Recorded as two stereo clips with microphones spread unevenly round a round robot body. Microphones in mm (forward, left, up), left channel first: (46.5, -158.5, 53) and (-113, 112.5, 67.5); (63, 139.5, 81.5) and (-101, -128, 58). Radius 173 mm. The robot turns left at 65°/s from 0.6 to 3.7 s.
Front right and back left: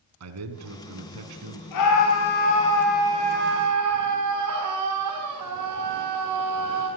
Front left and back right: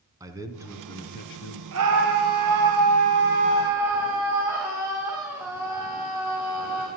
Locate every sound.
0.2 s a man speaking: 160° left, 4 m; by 1.6 s 95° left, 4 m
1.7 s a scream: 75° right, 4.5 m; by 6.9 s 155° left, 4.5 m